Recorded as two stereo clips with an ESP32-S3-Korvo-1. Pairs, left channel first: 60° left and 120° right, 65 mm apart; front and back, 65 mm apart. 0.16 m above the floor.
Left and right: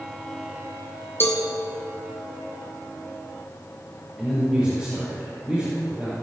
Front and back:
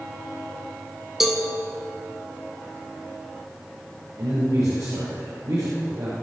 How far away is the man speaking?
About 4.5 m.